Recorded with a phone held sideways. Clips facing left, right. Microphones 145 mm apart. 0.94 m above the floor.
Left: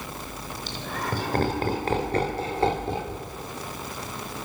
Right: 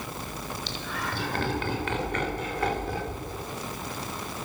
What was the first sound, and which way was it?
Laughter, 50° left (ahead or behind).